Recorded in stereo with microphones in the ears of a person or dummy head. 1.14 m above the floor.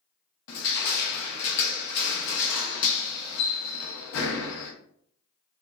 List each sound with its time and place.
0.5 s crushing: 65° left (ahead or behind), 0.6 m